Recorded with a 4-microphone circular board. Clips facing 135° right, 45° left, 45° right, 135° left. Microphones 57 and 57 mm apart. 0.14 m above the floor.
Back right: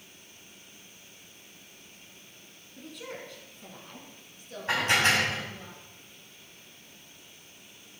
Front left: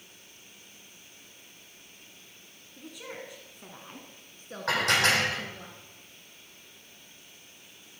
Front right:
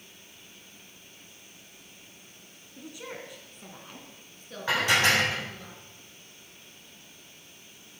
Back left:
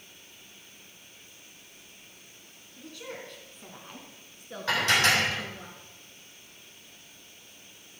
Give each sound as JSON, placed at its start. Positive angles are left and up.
{"t": 2.8, "sound": "a woman speaking", "azimuth_deg": -45, "distance_m": 1.1}
{"t": 4.7, "sound": "dishes clattering", "azimuth_deg": 30, "distance_m": 4.5}